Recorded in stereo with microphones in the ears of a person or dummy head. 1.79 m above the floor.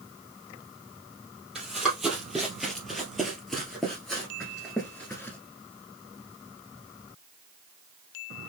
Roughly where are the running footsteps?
Centre.